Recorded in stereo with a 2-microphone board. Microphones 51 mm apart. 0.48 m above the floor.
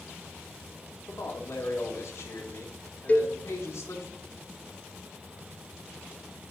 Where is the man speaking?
60° left (ahead or behind), 3 m.